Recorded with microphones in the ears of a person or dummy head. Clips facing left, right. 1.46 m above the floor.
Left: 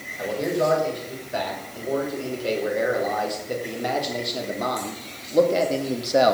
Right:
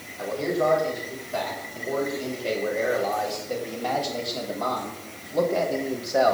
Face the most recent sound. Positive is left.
turn(degrees=40)  # may be behind; listen again after turning